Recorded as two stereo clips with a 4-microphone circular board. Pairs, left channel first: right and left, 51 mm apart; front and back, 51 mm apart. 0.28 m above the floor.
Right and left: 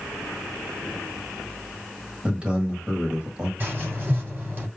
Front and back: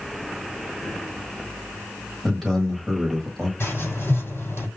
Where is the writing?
35° left, 3.5 m.